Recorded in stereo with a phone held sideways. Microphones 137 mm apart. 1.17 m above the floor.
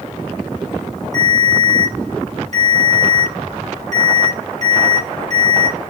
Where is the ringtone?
55° right (ahead or behind), 1.7 m.